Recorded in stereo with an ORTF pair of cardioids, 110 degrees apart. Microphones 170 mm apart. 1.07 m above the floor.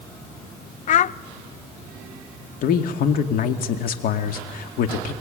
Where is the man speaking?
65° left, 2.5 m.